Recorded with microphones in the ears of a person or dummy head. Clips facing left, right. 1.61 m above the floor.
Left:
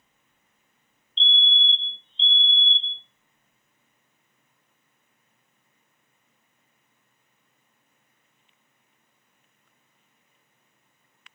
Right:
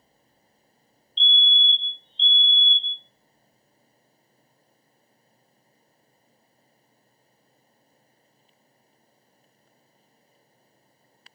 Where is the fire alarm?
25° left (ahead or behind), 0.6 m.